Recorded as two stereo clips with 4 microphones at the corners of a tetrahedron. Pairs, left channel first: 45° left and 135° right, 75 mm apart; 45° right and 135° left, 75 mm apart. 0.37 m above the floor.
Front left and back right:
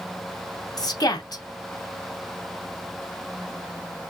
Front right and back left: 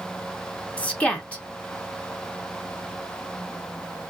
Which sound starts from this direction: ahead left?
A woman speaking, at 0.8 s.